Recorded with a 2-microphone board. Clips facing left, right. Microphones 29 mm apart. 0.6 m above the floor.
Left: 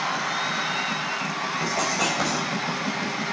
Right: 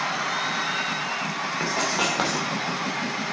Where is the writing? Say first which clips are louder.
Right 1 dB; 45° right (ahead or behind), 2.5 m.